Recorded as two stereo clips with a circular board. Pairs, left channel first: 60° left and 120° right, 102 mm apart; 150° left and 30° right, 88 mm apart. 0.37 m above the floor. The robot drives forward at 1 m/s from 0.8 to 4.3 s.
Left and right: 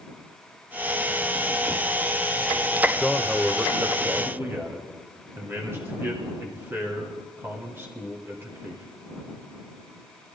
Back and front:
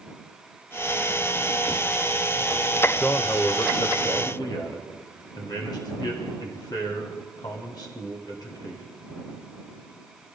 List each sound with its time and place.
3.0 s a man speaking: 155° left, 0.8 m; by 8.8 s 175° left, 1.7 m